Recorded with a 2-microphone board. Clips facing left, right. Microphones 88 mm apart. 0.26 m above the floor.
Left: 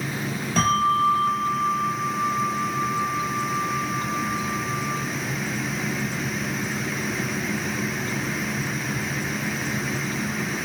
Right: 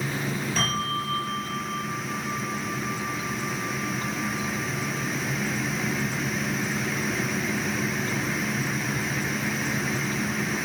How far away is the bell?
About 4 m.